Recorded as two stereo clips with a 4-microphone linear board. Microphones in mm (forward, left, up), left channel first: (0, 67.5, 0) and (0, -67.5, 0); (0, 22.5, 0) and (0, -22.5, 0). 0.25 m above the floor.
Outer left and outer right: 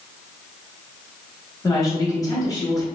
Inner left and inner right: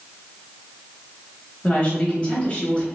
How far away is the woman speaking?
About 1.0 m.